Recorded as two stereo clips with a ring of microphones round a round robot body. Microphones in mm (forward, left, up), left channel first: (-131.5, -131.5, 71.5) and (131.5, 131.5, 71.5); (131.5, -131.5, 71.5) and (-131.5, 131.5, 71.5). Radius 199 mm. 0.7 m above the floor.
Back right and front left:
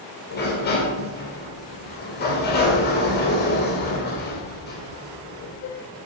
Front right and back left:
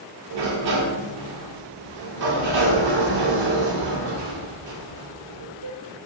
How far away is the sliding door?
About 2.0 m.